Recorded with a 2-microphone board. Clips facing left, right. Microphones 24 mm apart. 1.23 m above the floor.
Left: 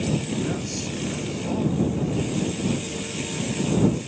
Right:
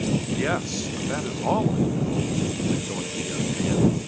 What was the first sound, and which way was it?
A man speaking, 60° right (ahead or behind).